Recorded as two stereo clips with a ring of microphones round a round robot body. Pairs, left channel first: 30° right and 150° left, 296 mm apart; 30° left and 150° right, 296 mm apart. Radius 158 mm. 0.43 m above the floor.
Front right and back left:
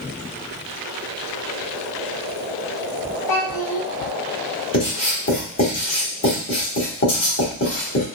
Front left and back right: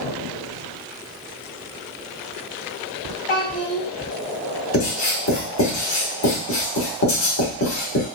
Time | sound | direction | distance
3.3 | a child speaking | 40° right | 1.7 m
4.7 | writing | 5° left | 1.6 m